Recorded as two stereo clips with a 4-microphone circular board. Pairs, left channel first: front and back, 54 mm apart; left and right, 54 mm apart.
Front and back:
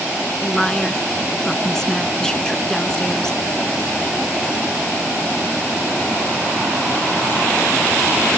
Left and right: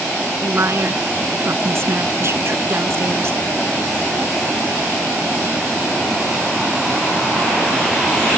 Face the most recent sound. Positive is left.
turn(degrees=-75)